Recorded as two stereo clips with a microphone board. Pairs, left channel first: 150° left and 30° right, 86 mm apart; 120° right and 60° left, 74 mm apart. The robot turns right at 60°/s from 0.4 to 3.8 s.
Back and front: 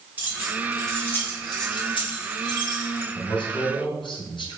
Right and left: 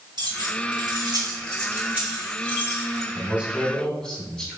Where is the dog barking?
I don't hear a dog barking.